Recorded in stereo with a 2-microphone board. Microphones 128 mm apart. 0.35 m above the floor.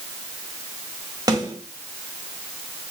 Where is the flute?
I don't hear a flute.